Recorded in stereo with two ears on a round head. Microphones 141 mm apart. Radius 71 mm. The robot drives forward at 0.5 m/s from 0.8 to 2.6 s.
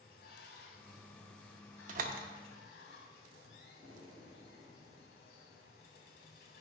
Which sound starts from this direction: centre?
Breathing, at 3.7 s.